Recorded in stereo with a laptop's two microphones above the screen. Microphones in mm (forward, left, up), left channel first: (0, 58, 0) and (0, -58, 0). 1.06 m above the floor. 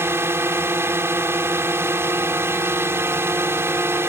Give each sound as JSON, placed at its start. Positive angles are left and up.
{"t": 0.0, "sound": "a drone", "side_deg": -20}